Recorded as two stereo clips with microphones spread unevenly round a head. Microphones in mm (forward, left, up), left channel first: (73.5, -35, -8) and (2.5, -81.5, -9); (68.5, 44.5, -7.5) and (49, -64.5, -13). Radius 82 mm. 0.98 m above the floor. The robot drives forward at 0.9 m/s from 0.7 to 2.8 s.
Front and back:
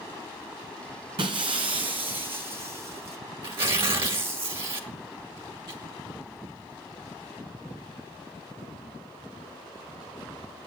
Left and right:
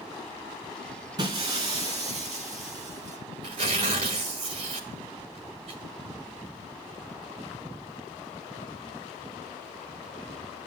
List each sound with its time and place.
1.2 s breaking glass: 155° right, 1.6 m; by 3.2 s 170° right, 3 m
3.4 s tearing paper: 150° right, 1.7 m